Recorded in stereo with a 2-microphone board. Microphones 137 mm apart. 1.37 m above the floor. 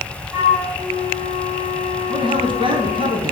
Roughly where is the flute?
Centre.